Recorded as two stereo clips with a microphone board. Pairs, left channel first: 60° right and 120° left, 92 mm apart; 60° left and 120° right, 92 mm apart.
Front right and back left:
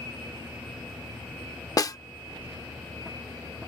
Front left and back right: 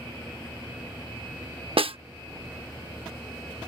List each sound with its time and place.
1.8 s a snare drum: 110° right